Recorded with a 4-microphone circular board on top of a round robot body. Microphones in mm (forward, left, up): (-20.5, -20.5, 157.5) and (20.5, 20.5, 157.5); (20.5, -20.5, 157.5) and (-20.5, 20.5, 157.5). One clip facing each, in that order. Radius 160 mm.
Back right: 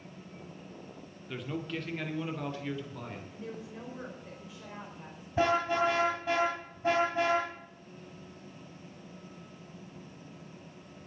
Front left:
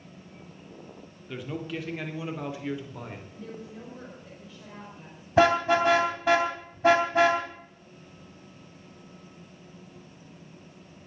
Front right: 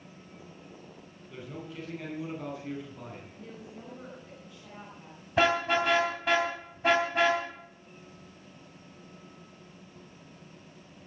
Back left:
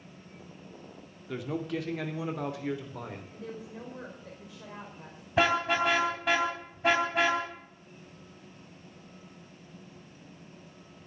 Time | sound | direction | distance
1.3 | a man speaking | 135° left | 3 m
3.3 | a woman speaking | 145° left | 4.5 m
5.4 | a car horn | 45° left | 3.5 m